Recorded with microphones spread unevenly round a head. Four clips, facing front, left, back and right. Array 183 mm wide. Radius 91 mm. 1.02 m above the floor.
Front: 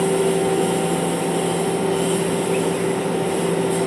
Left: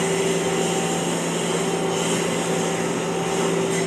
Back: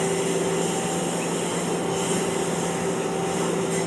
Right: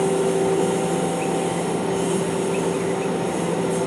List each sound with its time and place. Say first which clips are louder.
0.0 s a lawn mower: right 2 dB, front 6 dB; 95° left